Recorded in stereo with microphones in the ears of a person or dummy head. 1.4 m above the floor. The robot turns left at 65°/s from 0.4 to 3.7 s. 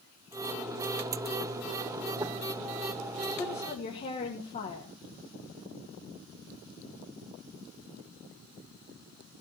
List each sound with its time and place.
3.4 s a woman speaking: 15° left (ahead or behind), 2 m; by 5.0 s 35° left (ahead or behind), 2 m